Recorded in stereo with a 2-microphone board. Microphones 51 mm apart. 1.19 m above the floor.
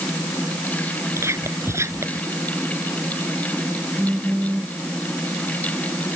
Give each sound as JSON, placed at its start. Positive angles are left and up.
{"t": 1.2, "sound": "whispering", "side_deg": -60}
{"t": 4.0, "sound": "a phone buzzing", "side_deg": -10}